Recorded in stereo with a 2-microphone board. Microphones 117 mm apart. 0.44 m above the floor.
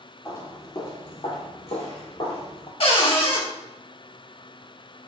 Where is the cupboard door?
55° left (ahead or behind), 0.6 m.